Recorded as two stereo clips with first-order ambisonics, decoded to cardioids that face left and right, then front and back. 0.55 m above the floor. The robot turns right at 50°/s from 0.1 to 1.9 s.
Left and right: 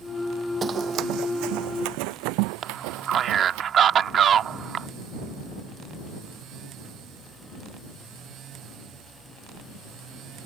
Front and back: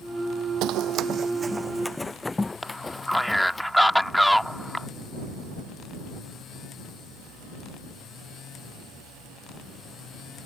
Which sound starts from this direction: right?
A man speaking, at 2.6 s.